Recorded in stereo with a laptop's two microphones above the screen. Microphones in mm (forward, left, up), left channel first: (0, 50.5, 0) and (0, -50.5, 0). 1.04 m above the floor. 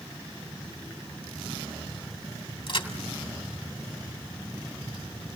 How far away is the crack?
About 2.5 m.